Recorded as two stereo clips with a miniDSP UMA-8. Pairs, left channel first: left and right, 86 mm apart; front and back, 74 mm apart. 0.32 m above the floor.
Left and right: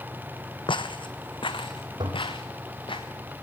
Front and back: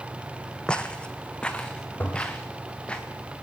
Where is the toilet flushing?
65° right, 3 m.